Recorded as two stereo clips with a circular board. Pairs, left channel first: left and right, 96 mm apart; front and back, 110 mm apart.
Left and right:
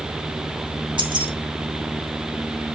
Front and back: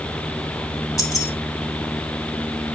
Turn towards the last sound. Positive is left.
turn(degrees=-60)